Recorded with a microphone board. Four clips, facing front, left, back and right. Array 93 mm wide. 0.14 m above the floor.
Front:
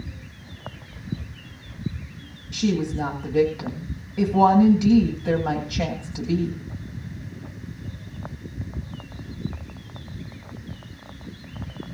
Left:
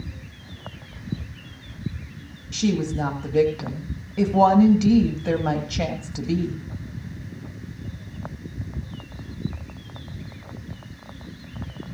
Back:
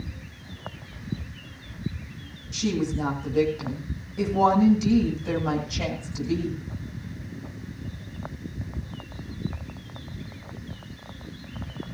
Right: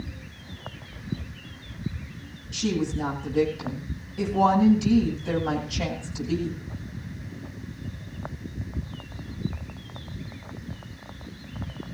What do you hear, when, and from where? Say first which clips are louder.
2.5 s a woman speaking: left 3 dB, front 3 dB; 75° left, 9 m